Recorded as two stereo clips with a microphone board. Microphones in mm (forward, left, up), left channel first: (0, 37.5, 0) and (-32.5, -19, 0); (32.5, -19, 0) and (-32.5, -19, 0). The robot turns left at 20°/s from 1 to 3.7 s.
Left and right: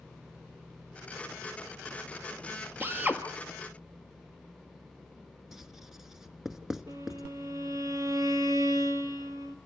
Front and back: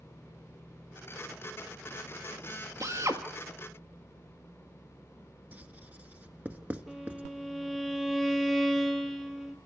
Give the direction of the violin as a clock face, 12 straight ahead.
3 o'clock.